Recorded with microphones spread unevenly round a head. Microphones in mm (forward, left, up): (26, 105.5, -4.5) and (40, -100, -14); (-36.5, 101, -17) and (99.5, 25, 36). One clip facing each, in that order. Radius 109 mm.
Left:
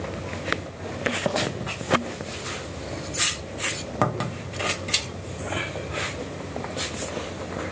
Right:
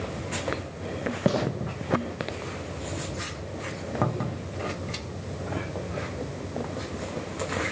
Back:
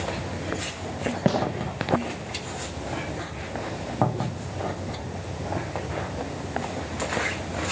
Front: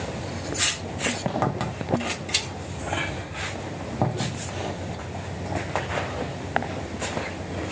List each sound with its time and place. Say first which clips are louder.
1.2 s a gunshot: right 3 dB, back 3 dB; 155° right, 1.7 m